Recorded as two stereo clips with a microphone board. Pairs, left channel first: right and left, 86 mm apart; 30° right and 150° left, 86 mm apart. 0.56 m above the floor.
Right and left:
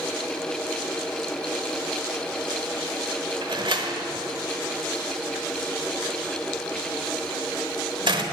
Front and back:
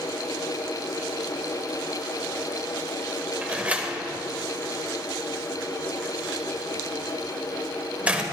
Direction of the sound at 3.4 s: 75° left.